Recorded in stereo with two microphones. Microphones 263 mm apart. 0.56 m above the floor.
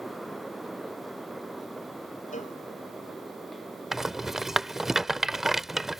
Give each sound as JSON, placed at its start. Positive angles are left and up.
{"t": 2.3, "sound": "a cowbell", "side_deg": 30}
{"t": 3.9, "sound": "a rattle", "side_deg": 0}